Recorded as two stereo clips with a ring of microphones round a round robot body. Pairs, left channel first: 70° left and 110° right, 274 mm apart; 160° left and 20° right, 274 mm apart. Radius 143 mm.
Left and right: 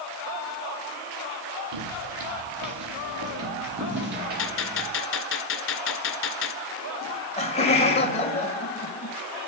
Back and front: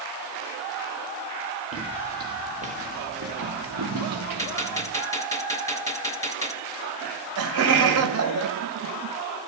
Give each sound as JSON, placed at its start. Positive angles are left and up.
{"t": 1.7, "sound": "footsteps", "azimuth_deg": -110, "distance_m": 2.5}
{"t": 4.4, "sound": "a gunshot", "azimuth_deg": 80, "distance_m": 1.8}
{"t": 7.0, "sound": "laughter", "azimuth_deg": 0, "distance_m": 2.5}